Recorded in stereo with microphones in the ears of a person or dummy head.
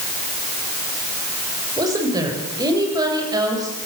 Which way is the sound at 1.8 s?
20° right (ahead or behind).